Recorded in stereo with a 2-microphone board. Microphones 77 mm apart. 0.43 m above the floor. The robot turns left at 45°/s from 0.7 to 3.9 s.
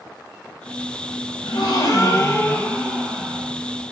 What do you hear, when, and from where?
1.4 s a gasp: 70° left, 0.7 m; by 3.5 s 25° right, 0.7 m